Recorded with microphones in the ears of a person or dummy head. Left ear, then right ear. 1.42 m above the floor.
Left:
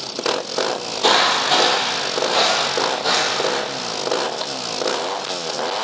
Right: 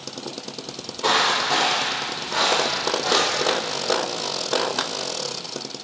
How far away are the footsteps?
About 2.5 m.